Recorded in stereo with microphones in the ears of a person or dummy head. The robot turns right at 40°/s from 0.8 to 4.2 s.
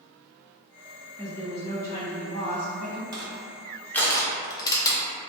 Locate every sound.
1.2 s a woman speaking: straight behind, 1.2 m; by 3.0 s 105° right, 1.2 m
3.1 s crushing: 20° right (ahead or behind), 0.5 m; by 5.0 s 25° left (ahead or behind), 0.5 m